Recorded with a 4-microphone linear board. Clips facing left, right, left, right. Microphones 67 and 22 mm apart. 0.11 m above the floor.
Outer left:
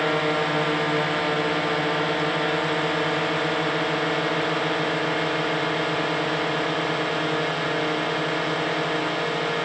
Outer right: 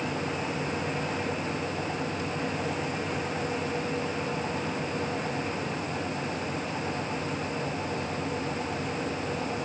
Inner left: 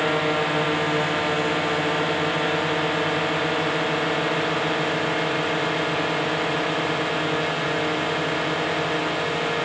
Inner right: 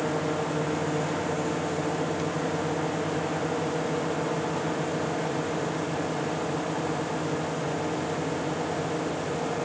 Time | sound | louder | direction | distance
0.0 | a drone | outer left 9 dB, inner left 6 dB | 75° left (ahead or behind) | ?